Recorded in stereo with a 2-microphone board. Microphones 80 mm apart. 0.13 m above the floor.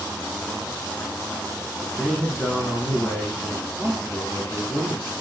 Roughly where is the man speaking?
Centre.